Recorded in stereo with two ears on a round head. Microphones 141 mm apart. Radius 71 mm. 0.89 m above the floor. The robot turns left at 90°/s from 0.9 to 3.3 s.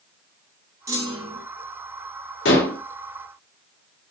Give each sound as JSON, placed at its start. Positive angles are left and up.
{"t": 0.9, "sound": "a clunk", "azimuth_deg": -30, "distance_m": 0.6}
{"t": 2.5, "sound": "dishes clattering", "azimuth_deg": 85, "distance_m": 0.7}